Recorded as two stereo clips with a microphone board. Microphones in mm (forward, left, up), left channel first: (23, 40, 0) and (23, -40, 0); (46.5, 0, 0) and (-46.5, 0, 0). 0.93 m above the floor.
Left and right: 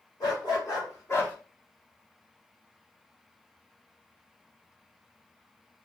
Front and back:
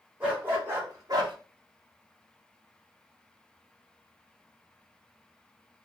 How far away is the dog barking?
About 1.8 m.